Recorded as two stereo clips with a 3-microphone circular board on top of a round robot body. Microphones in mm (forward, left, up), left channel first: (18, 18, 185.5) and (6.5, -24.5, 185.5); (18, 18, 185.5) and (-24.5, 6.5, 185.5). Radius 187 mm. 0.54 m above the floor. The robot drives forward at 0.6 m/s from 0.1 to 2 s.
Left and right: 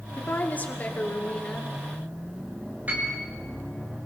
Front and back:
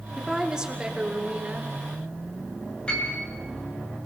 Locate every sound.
0.2 s a woman speaking: 115° left, 1.8 m; by 1.7 s 140° left, 2.5 m
2.9 s a piano: 55° right, 7 m